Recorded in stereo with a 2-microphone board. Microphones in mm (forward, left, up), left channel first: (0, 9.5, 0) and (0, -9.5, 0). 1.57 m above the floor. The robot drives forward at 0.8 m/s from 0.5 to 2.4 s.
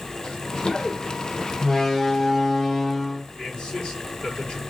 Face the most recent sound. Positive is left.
turn(degrees=60)  # may be behind; listen again after turning